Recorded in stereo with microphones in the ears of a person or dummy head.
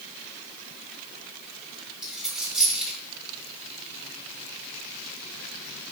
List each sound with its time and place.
2.0 s a dropped coin: 5° right (ahead or behind), 3 m